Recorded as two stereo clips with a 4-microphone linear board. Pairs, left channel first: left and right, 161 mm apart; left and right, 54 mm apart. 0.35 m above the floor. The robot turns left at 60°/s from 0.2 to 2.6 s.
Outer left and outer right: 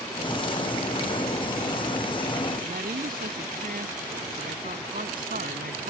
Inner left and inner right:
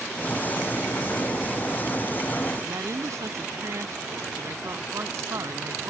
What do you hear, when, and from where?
2.6 s a woman speaking: 65° right (ahead or behind)